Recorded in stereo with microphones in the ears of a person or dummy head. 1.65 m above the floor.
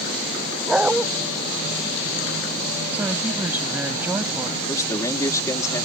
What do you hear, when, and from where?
0.7 s a dog barking: 5° right (ahead or behind)
2.9 s a woman speaking: 10° right (ahead or behind)
4.7 s a man speaking: 20° left (ahead or behind)